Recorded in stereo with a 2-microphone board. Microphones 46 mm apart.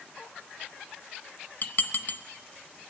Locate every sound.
1.6 s dishes clattering: 40° left (ahead or behind), 0.9 m